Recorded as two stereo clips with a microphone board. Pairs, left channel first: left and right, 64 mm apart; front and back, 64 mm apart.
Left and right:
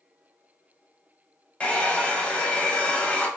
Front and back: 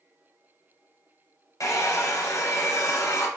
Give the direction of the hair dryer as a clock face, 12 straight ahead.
11 o'clock.